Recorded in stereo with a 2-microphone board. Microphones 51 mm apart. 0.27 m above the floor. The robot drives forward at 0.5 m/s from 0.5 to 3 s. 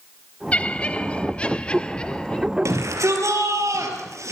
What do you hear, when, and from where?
0.5 s laughter: 25° left (ahead or behind), 1.3 m; by 2.5 s 15° left (ahead or behind), 1.9 m
2.6 s a shout: 80° right, 6 m